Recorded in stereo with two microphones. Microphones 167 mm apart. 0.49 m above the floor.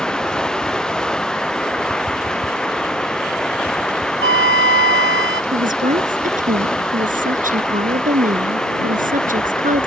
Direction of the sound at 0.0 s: 5° left (ahead or behind).